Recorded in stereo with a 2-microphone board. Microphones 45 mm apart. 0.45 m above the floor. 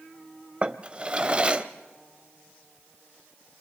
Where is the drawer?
25° right (ahead or behind), 0.8 m.